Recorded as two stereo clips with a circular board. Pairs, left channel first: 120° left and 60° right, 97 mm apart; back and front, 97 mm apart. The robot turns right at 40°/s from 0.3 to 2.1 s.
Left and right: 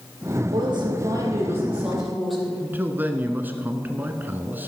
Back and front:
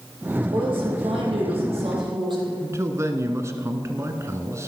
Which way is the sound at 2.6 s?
10° right.